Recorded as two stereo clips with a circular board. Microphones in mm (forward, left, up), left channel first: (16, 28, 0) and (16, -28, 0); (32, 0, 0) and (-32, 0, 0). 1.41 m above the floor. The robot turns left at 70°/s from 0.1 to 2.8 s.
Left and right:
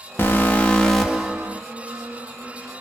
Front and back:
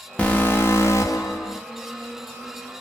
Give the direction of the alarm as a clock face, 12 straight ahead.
10 o'clock.